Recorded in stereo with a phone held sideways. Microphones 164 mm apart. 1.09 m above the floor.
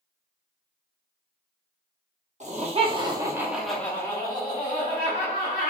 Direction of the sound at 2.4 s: 45° right (ahead or behind).